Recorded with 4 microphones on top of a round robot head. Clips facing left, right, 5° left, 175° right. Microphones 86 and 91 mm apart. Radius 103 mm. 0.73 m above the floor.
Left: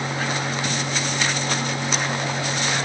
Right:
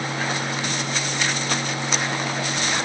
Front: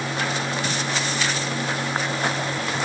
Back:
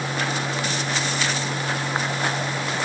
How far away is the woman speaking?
No woman speaking in this recording.